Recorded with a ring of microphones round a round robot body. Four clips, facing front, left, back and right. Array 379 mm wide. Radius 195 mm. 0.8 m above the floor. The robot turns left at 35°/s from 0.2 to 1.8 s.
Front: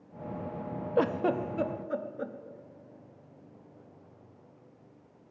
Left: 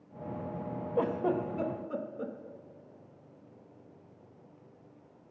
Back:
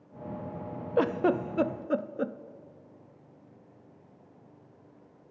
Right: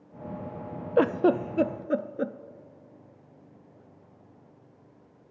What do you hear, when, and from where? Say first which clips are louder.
1.0 s a giggle: right 8 dB, back 2 dB; 95° right, 0.6 m; by 2.3 s 125° right, 0.6 m